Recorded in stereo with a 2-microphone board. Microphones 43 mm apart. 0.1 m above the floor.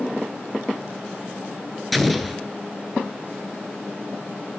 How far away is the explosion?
About 0.5 m.